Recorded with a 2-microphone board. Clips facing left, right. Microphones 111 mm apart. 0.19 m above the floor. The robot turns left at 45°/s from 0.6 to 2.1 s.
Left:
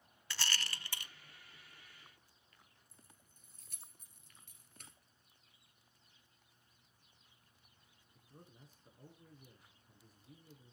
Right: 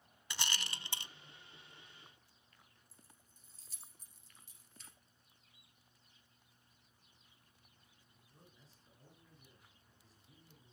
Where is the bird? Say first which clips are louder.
Right 1 dB; 35° left (ahead or behind), 6 m.